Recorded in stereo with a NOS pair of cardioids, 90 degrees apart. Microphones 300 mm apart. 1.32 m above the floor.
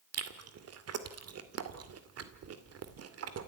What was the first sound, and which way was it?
Chewing, 55° right.